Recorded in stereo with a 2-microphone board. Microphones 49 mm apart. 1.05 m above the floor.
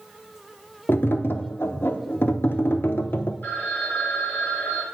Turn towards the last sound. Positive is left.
turn(degrees=45)  # may be behind; listen again after turning